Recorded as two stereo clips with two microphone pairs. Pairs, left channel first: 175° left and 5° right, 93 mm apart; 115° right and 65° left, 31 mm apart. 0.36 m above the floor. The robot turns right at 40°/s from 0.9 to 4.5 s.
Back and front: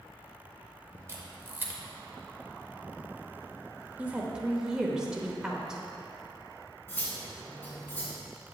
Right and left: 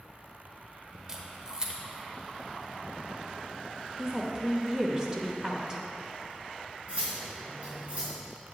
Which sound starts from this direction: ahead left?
A woman speaking, at 4.0 s.